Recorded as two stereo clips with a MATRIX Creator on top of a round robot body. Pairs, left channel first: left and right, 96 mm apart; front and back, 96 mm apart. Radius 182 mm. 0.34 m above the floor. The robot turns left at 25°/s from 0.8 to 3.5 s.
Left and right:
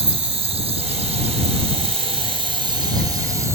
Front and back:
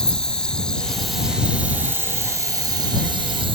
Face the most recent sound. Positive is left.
turn(degrees=-150)